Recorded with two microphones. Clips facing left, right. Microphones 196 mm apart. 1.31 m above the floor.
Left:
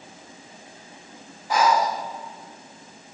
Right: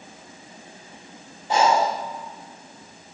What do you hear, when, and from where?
1.5 s breathing: 25° right (ahead or behind), 0.6 m